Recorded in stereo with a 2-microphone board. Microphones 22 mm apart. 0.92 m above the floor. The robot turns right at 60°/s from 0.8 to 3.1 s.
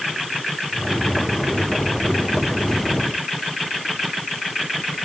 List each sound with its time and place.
Only background noise.